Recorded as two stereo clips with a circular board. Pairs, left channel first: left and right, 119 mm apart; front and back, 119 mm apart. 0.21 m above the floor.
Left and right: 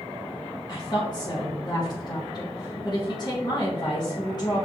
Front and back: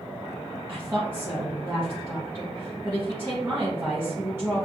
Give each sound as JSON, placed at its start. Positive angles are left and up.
{"t": 0.7, "sound": "a woman speaking", "azimuth_deg": 120, "distance_m": 1.4}